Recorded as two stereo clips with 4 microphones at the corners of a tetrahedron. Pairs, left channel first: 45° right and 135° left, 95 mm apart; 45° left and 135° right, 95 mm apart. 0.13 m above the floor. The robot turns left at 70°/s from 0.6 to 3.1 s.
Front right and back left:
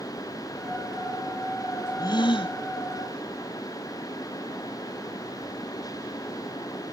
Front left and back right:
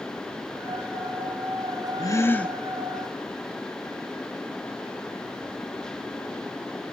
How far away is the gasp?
About 0.7 m.